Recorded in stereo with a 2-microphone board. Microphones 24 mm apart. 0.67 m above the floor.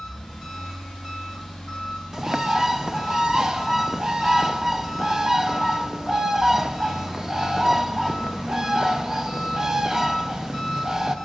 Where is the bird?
25° right (ahead or behind), 0.5 m.